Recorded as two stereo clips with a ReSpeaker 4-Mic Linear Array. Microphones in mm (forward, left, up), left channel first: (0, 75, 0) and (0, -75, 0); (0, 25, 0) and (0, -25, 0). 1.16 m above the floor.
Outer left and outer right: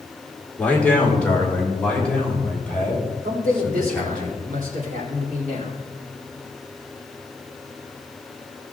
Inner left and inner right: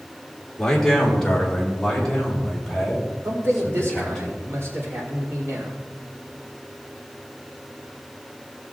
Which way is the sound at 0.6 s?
10° left (ahead or behind).